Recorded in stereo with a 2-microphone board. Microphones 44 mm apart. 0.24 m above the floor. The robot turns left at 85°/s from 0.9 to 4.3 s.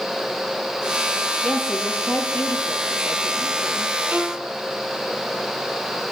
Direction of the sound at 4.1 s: 35° right (ahead or behind).